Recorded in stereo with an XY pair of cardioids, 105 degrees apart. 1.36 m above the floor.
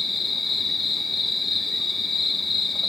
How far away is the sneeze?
I don't hear a sneeze.